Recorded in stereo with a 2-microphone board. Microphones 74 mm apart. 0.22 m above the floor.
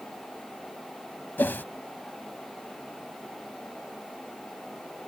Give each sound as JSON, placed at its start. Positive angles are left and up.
{"t": 1.4, "sound": "a whoosh", "side_deg": 25}